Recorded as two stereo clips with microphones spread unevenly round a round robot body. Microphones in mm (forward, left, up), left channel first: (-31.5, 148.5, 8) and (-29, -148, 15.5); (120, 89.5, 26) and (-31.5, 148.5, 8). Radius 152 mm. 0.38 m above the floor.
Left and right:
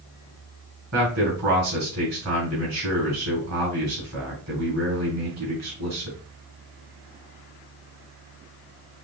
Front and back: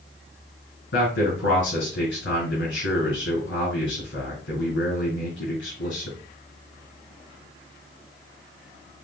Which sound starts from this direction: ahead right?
A man speaking, at 0.9 s.